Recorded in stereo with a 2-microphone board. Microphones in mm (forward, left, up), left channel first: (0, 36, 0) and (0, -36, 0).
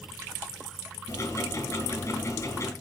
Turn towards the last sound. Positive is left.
turn(degrees=45)  # may be behind; listen again after turning